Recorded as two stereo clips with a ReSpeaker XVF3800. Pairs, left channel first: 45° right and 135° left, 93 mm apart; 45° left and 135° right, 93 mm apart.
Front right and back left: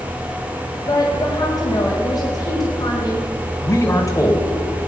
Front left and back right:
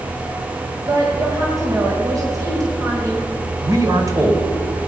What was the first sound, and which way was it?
A woman speaking, 85° right.